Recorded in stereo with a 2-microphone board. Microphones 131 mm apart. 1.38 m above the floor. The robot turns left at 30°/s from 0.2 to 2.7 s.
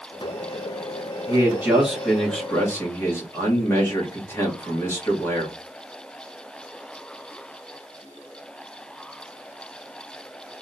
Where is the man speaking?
155° right, 1.5 m; by 5.6 s 160° left, 1.5 m.